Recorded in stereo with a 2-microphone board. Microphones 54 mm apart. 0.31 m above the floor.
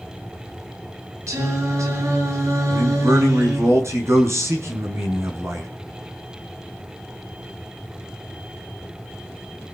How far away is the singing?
About 5.5 m.